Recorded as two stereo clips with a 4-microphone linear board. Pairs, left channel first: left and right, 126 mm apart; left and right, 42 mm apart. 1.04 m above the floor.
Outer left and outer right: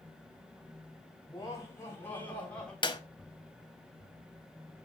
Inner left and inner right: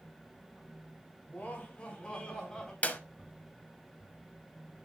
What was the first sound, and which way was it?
Laughter, 30° left (ahead or behind).